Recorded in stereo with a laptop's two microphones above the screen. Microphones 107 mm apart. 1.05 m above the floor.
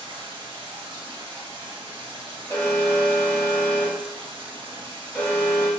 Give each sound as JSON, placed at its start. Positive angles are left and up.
{"t": 0.0, "sound": "running water", "side_deg": -55, "distance_m": 0.8}
{"t": 2.5, "sound": "an alarm", "side_deg": 25, "distance_m": 1.4}